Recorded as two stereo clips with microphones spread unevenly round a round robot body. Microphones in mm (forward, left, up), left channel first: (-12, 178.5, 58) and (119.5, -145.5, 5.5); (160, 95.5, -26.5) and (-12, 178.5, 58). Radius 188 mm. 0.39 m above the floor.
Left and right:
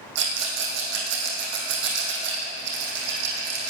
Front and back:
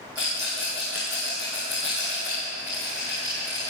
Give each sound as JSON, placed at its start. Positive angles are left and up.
{"t": 0.1, "sound": "a rattle", "azimuth_deg": -120, "distance_m": 3.0}